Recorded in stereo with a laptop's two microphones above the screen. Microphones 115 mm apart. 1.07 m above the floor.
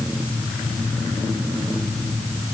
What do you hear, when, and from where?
Only background noise.